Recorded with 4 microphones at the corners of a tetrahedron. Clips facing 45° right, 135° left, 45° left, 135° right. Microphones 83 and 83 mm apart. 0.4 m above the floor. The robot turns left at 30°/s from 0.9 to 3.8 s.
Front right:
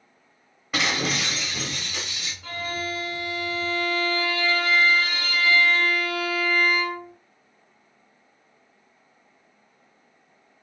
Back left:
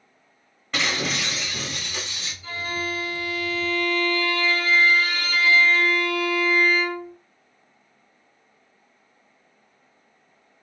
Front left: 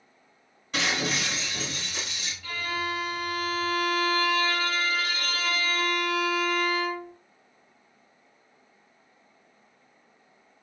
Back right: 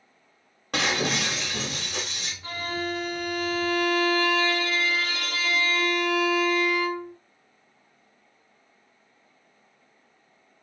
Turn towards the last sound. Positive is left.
turn(degrees=-115)